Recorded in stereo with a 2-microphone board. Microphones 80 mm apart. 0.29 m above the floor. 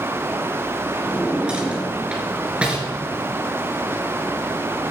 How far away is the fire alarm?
No fire alarm in this recording.